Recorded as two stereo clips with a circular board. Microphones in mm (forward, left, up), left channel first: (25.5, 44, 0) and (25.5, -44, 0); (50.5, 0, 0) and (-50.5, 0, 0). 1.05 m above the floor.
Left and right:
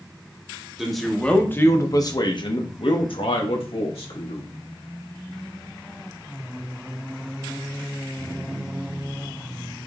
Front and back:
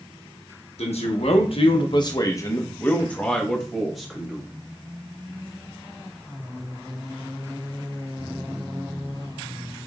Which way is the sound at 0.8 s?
5° right.